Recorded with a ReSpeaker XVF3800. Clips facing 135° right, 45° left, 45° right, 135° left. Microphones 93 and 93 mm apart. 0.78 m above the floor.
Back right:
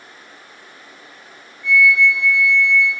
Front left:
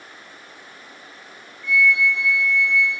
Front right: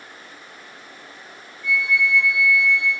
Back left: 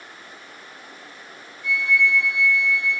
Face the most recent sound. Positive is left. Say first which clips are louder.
# back right 4 dB, even
turn(degrees=160)